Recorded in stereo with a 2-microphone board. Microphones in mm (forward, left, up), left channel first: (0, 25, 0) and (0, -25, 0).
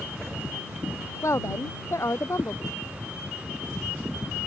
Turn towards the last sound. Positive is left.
turn(degrees=60)  # may be behind; listen again after turning